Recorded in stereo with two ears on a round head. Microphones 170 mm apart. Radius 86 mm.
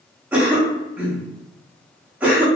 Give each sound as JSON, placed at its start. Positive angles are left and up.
{"t": 0.3, "sound": "a cough", "side_deg": -10, "distance_m": 0.7}